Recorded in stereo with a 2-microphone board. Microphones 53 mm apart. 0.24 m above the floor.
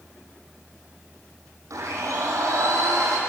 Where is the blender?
75° right (ahead or behind), 6 m.